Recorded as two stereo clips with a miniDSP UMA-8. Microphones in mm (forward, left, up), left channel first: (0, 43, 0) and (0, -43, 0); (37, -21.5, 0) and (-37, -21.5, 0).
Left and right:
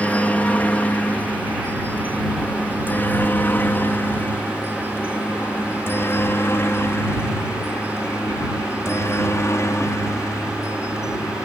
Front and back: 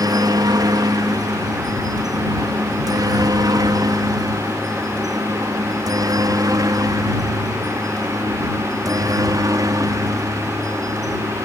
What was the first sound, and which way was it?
A helicopter, 160° left.